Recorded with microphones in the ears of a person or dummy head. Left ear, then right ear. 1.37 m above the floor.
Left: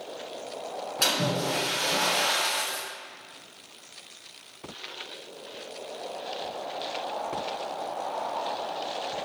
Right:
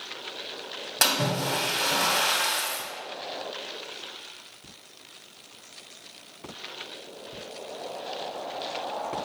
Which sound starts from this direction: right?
A splash, at 1.0 s.